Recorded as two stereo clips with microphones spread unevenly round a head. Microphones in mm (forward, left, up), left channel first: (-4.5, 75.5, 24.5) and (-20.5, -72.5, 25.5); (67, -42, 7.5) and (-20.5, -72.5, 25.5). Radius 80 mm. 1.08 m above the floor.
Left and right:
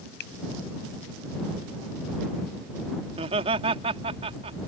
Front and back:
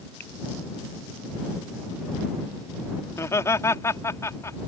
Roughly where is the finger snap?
Left.